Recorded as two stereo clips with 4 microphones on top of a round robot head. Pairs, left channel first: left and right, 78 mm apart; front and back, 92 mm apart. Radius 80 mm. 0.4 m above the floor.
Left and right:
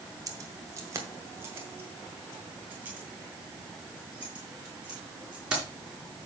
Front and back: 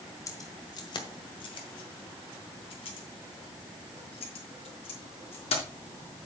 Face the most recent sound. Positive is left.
turn(degrees=-10)